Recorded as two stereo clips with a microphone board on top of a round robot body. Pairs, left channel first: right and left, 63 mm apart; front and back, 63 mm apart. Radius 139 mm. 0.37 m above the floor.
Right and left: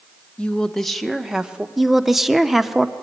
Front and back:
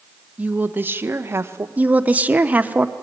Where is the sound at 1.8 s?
175° left, 1.2 m.